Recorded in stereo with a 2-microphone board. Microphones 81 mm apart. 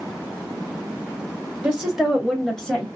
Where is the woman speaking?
15° right (ahead or behind), 1.5 m; by 2.9 s 15° left (ahead or behind), 1.3 m.